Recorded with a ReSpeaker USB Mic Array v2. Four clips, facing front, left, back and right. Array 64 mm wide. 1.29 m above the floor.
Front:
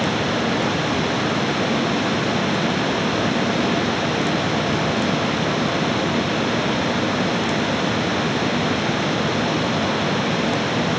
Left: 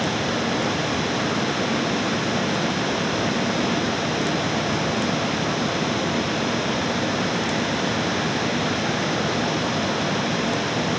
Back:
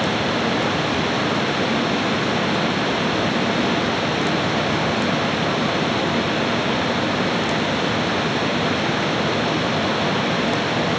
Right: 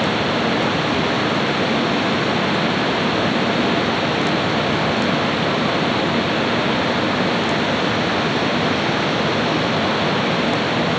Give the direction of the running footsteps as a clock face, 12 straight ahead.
I don't hear running footsteps.